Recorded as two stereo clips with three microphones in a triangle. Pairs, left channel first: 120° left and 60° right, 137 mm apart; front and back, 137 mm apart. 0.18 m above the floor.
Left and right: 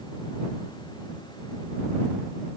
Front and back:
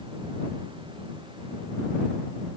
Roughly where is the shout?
No shout in this recording.